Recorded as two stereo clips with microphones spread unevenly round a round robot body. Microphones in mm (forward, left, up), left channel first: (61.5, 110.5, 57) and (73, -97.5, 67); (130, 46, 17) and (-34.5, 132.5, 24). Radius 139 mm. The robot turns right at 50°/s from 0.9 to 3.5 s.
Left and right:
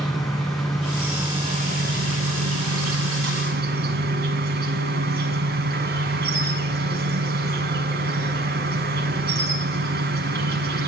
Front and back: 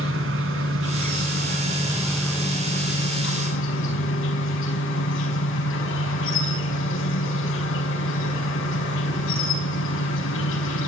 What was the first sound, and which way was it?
An insect, straight behind.